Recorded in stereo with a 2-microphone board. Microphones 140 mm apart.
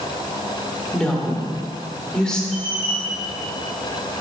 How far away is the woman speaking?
About 1.3 m.